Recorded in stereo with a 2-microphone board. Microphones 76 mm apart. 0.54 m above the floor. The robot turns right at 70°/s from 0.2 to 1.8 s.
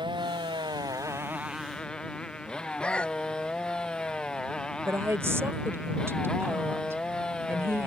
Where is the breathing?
15° left (ahead or behind).